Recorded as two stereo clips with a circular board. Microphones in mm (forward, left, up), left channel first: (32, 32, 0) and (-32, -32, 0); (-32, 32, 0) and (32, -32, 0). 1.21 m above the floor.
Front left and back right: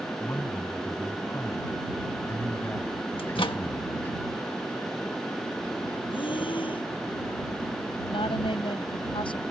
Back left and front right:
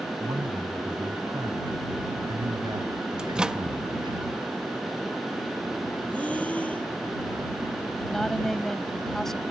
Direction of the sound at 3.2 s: 35° left.